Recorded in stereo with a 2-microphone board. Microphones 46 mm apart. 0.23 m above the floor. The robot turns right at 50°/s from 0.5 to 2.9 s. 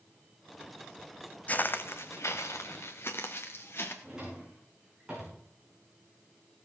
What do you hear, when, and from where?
1.5 s footsteps: 35° left (ahead or behind), 0.6 m; by 3.9 s 55° left (ahead or behind), 2.5 m
4.0 s a drawer: 15° right (ahead or behind), 6.5 m